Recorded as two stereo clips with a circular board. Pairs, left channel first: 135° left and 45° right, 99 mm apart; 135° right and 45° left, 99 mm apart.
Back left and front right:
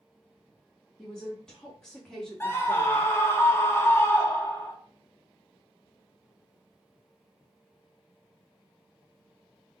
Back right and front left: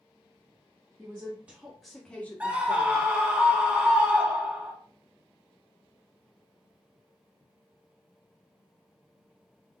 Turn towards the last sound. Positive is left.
turn(degrees=105)